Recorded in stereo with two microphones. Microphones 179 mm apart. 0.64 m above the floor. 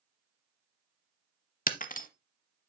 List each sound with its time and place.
1.7 s breaking glass: 50° left (ahead or behind), 0.7 m